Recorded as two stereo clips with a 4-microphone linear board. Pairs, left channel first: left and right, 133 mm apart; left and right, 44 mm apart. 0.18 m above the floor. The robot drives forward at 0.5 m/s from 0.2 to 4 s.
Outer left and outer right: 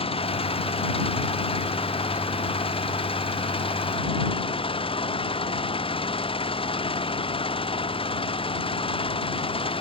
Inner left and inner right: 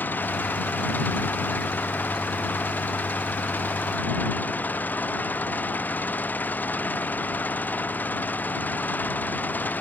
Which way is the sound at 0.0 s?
45° left (ahead or behind).